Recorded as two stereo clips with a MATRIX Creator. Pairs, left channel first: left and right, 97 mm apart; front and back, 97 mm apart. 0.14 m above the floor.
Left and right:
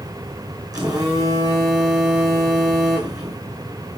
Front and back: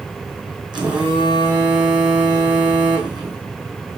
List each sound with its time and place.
0.7 s a phone buzzing: 140° right, 3 m